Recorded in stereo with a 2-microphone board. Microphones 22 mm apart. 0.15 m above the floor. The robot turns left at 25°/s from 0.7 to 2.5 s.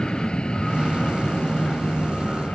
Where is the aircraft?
40° left (ahead or behind); by 2.5 s 60° left (ahead or behind).